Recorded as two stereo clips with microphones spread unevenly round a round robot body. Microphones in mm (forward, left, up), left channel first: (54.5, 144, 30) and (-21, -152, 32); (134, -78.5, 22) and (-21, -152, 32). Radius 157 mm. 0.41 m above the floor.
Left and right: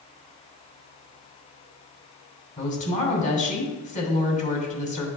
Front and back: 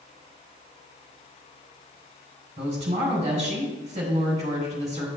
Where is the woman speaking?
140° left, 2 m.